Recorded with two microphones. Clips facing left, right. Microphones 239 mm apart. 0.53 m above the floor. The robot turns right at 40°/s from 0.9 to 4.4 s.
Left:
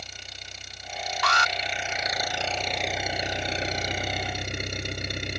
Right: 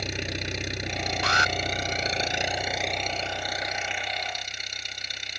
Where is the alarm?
70° left (ahead or behind); by 1.5 s 60° left (ahead or behind).